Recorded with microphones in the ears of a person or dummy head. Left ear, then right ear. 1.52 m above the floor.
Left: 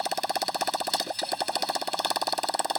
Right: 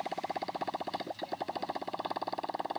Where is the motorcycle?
80° left.